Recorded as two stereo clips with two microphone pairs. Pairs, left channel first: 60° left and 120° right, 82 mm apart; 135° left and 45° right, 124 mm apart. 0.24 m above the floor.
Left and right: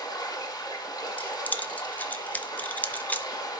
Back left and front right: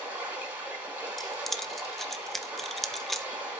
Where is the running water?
30° left, 4 m.